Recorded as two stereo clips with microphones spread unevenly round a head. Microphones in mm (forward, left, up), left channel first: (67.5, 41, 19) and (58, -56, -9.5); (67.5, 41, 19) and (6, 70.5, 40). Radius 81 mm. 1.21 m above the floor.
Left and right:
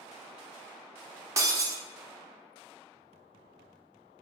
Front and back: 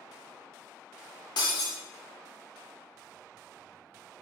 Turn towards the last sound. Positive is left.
turn(degrees=-30)